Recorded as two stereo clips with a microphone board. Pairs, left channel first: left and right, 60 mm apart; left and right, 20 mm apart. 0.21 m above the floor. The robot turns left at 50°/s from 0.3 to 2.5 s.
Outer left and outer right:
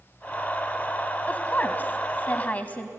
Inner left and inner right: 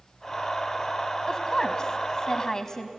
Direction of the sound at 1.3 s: 25° left (ahead or behind).